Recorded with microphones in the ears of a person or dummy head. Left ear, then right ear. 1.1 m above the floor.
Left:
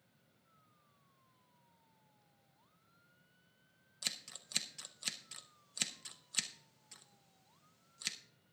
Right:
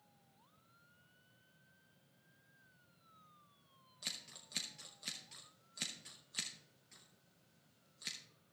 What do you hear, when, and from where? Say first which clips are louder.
4.0 s scissors: left 4 dB; 35° left (ahead or behind), 0.6 m